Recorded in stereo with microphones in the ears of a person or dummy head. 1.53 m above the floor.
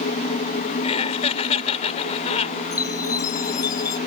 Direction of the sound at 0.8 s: 35° left (ahead or behind).